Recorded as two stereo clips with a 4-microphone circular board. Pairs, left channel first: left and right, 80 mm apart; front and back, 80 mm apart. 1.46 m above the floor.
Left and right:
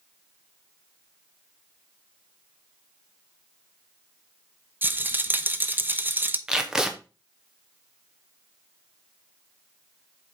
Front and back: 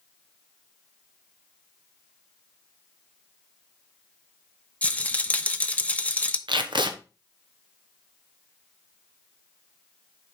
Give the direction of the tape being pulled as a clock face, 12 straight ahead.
6 o'clock.